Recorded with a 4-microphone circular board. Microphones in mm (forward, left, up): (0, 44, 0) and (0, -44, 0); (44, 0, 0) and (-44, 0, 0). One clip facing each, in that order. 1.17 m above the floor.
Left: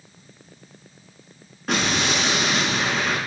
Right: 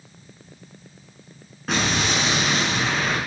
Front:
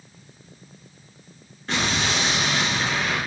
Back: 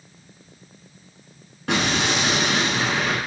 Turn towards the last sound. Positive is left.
turn(degrees=180)